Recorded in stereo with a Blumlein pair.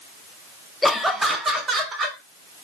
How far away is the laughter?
About 0.5 m.